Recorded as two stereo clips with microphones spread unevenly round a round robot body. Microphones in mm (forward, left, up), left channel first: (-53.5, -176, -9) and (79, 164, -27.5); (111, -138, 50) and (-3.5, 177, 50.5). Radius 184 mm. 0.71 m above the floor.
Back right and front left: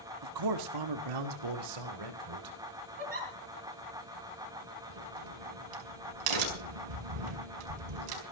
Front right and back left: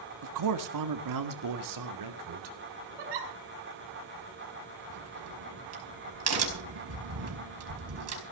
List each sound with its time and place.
0.2 s a man speaking: 95° left, 1.5 m; by 2.5 s 85° left, 3 m
3.0 s a giggle: 140° left, 4.5 m
4.9 s a crack: 65° left, 5 m